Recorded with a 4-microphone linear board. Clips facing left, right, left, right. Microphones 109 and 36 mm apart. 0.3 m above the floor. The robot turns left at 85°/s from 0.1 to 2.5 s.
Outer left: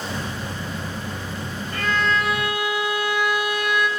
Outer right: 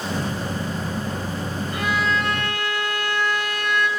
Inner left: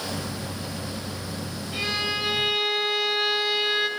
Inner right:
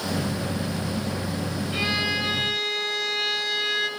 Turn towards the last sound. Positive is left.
turn(degrees=15)  # may be behind; listen again after turning